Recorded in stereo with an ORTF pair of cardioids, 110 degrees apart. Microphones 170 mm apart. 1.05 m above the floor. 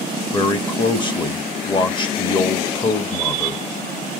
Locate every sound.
0.3 s a man speaking: 25° left, 1.2 m